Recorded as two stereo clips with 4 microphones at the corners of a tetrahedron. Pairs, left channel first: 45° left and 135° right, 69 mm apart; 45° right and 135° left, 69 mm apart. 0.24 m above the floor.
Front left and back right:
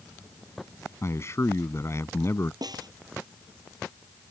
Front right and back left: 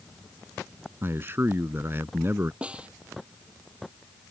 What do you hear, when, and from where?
1.0 s a man speaking: 85° left
2.6 s a snare drum: 150° right